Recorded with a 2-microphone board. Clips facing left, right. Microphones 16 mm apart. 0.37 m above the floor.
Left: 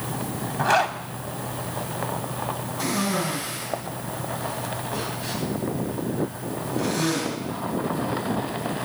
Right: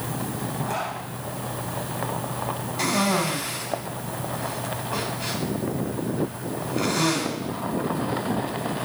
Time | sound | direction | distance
0.6 | a zipper | 70° left (ahead or behind) | 0.7 m
2.8 | a cough | 60° right (ahead or behind) | 2.5 m